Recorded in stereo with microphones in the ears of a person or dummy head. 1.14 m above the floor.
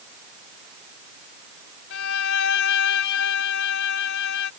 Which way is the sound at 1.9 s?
70° left (ahead or behind).